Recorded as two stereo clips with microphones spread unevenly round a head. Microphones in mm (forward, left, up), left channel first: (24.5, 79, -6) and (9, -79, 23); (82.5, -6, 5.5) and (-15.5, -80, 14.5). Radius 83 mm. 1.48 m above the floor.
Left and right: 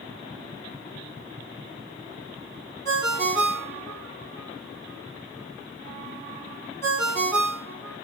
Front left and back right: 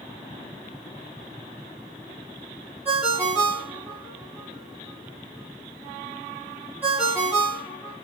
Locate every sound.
2.9 s a ringtone: 165° left, 1.1 m